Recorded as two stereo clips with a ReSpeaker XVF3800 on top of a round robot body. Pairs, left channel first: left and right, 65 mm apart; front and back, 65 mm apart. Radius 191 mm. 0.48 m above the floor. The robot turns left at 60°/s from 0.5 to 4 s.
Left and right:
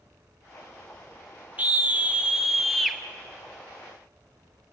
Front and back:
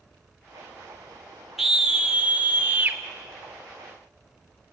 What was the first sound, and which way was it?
A scream, 100° right.